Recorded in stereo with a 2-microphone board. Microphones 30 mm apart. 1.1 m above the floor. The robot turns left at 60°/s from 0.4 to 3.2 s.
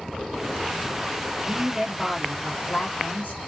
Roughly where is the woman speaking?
Behind right.